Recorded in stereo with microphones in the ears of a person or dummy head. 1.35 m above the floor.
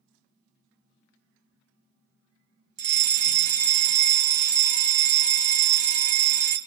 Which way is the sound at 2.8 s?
35° right (ahead or behind).